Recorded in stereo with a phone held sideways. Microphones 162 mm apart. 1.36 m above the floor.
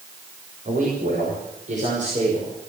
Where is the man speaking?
60° right (ahead or behind), 6 m; by 2.5 s 45° right (ahead or behind), 5.5 m.